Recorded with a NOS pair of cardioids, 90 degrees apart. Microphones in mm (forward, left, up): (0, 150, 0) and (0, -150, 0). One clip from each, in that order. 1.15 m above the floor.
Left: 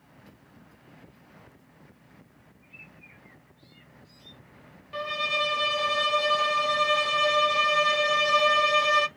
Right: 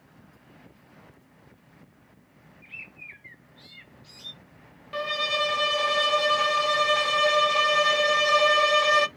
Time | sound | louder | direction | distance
2.6 | a bird | right 9 dB | 70° right | 0.6 m
4.9 | a violin | right 1 dB | 25° right | 0.6 m